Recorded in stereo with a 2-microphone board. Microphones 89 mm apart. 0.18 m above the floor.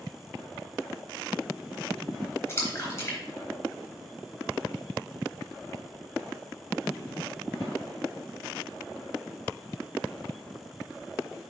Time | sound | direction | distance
2.5 | a splash | 30° left (ahead or behind) | 3 m